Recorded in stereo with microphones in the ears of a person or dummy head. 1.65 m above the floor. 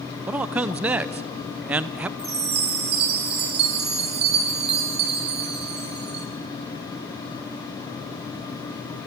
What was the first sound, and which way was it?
A man speaking, 15° right (ahead or behind).